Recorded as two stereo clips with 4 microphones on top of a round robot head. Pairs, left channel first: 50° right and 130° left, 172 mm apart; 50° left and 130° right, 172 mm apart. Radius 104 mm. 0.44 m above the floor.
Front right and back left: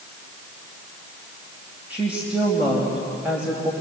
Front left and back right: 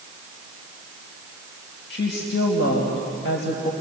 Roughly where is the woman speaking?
Ahead left.